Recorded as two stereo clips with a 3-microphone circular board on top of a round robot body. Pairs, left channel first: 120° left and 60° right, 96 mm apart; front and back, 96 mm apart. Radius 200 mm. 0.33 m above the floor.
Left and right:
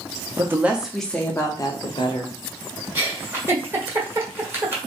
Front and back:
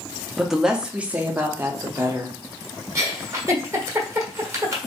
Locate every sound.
0.4 s a woman speaking: 90° right, 1.1 m; by 2.4 s 120° left, 1.5 m
3.0 s a giggle: 125° right, 1.5 m